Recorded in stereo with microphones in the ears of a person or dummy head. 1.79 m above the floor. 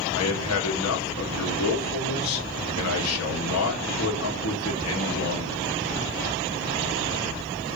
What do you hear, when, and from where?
0.1 s a man speaking: 85° left, 1.9 m